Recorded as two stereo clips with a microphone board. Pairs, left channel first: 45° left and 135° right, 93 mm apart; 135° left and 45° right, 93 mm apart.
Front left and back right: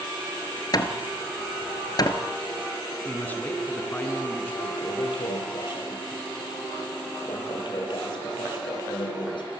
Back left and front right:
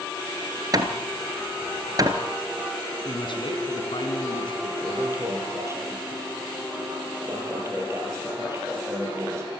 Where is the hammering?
Straight ahead, 1.8 m.